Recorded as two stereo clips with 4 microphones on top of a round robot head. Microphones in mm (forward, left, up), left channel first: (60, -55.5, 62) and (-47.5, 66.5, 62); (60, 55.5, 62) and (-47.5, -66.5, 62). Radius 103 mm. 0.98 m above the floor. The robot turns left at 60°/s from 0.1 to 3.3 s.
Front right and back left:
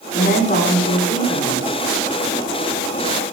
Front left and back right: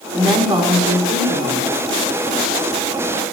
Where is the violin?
No violin in this recording.